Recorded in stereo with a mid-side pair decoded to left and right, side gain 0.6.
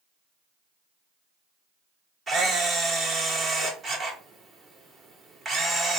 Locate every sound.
2.3 s a camera shutter: 35° right, 2.5 m